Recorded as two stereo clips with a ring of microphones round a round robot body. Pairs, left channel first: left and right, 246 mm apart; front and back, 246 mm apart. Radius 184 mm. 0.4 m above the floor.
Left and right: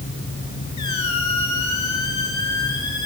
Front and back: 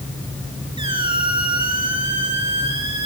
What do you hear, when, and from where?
0.8 s a squeak: 110° left, 5 m